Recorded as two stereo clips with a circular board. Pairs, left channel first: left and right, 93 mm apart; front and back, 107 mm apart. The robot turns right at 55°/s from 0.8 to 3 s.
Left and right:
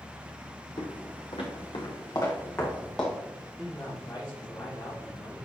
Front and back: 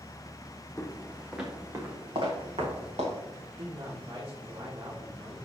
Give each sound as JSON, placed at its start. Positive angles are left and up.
{"t": 0.8, "sound": "footsteps", "azimuth_deg": 70, "distance_m": 1.6}
{"t": 3.6, "sound": "a man speaking", "azimuth_deg": 145, "distance_m": 4.0}